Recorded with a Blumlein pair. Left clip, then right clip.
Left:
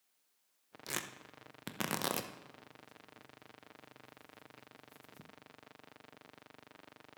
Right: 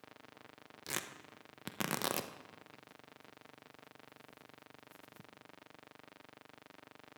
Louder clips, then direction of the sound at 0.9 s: Even; straight ahead.